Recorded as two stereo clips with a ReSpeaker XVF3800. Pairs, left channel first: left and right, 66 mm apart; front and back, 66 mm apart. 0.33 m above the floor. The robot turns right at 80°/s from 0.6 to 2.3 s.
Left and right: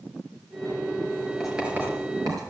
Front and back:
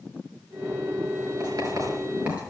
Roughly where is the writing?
Behind.